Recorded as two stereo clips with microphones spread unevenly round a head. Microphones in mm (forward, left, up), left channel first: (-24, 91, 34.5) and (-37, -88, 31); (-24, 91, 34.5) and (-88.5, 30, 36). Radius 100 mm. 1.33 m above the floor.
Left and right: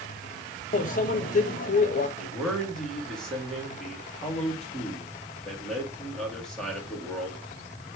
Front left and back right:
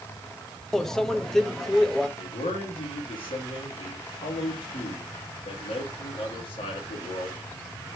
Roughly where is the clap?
No clap in this recording.